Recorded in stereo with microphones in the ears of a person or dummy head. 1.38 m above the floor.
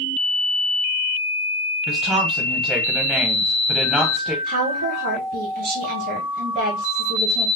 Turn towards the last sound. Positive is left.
turn(degrees=-50)  # may be behind; listen again after turning